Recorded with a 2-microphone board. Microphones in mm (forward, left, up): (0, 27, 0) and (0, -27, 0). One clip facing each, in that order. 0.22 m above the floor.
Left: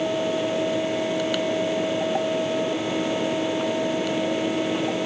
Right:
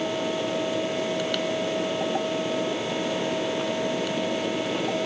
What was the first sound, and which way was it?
Only background noise.